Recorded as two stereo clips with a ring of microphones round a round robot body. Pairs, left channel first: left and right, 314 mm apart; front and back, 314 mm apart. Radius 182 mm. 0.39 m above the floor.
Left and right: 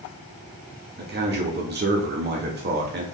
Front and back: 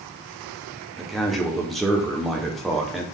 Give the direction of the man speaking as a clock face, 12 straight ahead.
3 o'clock.